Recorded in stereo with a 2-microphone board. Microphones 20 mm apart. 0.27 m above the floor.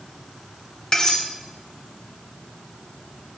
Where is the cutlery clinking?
40° left (ahead or behind), 0.9 m.